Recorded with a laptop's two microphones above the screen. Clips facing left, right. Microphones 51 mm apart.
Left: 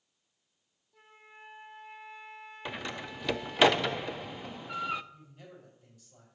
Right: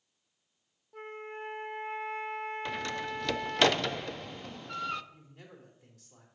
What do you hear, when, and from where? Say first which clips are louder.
0.9 s a flute: right 13 dB; 50° right (ahead or behind), 0.5 m
2.6 s a door slam: right 4 dB; 10° left (ahead or behind), 0.5 m
5.1 s a man speaking: left 1 dB; 70° right (ahead or behind), 3 m